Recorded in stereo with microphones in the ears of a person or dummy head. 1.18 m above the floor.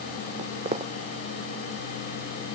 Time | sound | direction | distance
0.4 | footsteps | 40° right (ahead or behind) | ?